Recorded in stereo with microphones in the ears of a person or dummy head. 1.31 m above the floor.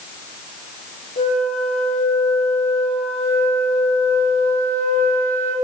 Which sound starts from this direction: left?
A flute, at 1.2 s.